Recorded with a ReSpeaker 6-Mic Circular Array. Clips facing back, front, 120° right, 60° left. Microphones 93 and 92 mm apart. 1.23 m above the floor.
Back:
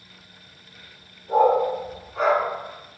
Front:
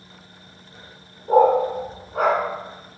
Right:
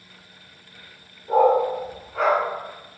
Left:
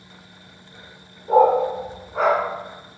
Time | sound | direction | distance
1.3 | a dog barking | 5° left | 0.8 m